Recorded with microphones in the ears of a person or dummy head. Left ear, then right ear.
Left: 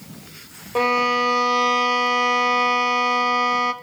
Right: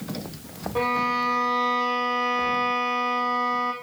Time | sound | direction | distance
0.8 | a violin | 80° left | 0.7 m